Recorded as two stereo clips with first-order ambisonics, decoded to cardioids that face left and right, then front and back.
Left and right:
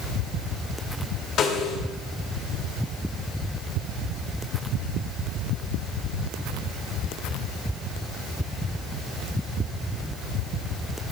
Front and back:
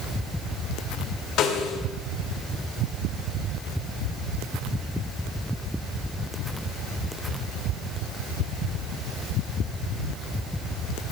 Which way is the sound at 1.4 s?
40° left.